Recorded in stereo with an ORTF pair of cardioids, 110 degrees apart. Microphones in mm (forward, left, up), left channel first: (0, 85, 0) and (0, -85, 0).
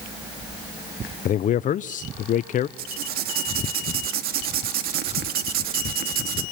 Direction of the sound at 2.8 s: 65° right.